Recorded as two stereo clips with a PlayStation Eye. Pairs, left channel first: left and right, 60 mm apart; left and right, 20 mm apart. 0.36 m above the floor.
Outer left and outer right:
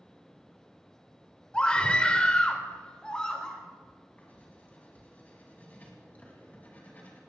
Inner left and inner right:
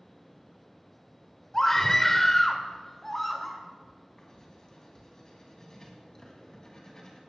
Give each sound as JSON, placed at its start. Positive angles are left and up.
{"t": 1.5, "sound": "a scream", "side_deg": 15, "distance_m": 1.3}
{"t": 4.2, "sound": "writing", "side_deg": 30, "distance_m": 3.5}